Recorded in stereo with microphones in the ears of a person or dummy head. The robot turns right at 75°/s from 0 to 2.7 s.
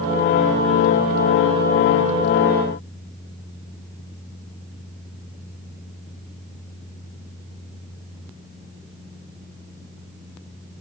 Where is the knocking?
I don't hear knocking.